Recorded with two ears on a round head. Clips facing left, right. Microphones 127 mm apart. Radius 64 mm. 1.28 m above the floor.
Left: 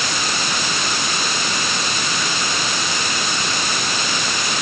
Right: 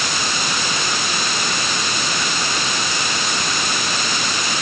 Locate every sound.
Only background noise.